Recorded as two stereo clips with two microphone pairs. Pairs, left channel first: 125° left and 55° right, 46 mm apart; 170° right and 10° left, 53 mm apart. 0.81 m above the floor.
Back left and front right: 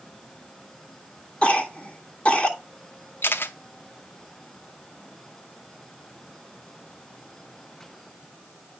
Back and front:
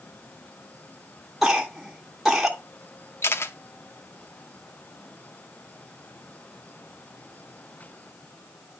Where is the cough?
95° left, 1.1 m.